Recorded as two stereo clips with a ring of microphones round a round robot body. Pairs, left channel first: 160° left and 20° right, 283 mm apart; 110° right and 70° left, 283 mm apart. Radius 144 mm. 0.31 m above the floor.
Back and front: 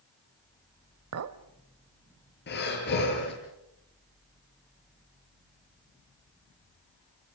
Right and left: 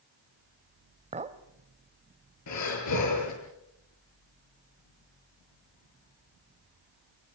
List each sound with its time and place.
1.1 s a clink: 5° left, 1.1 m
2.5 s breathing: 145° right, 7.5 m